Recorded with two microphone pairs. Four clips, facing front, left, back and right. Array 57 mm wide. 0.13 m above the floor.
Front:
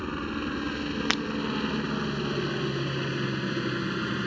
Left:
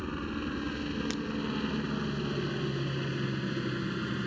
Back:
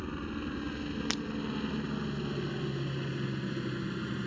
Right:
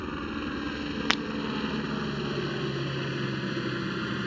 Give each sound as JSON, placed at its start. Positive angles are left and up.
{"t": 0.0, "sound": "a helicopter", "azimuth_deg": -20}
{"t": 1.1, "sound": "breaking glass", "azimuth_deg": -60}